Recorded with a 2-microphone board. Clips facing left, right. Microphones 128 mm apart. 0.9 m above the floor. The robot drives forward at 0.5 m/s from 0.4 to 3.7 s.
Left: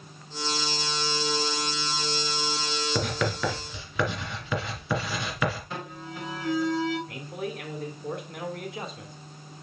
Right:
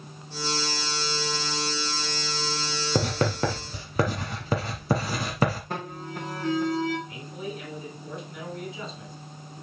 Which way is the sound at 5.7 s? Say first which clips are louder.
Right 3 dB; 50° right (ahead or behind).